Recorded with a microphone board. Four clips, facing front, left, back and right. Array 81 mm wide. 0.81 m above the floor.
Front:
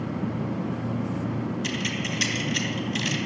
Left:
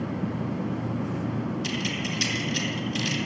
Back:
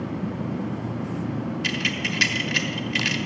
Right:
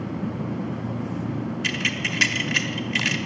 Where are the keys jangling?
120° right, 1.0 m.